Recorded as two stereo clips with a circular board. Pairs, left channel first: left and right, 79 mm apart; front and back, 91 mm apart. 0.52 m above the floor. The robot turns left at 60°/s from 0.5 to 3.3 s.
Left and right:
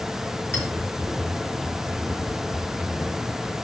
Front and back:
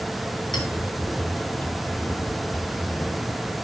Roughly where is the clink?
Ahead left.